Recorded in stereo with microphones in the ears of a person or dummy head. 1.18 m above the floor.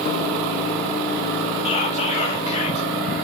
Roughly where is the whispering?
Left.